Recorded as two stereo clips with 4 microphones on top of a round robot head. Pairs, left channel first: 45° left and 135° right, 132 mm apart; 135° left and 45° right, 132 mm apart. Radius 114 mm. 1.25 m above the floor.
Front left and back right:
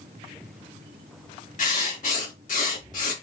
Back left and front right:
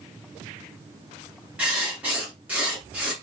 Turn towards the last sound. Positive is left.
turn(degrees=35)